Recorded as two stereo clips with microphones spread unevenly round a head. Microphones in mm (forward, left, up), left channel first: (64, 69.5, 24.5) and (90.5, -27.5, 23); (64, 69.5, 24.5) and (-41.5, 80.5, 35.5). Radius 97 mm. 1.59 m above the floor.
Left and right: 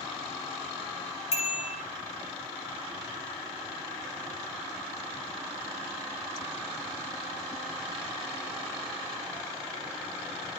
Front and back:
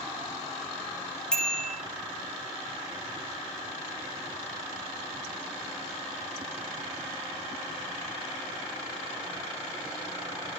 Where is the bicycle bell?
80° left, 6 m.